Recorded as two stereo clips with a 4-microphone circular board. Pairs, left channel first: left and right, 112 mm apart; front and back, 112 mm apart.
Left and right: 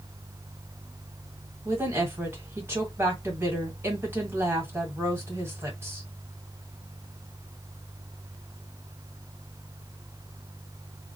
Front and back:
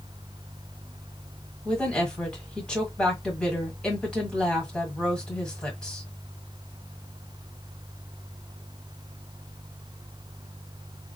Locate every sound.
1.6 s a woman speaking: 70° right, 1.5 m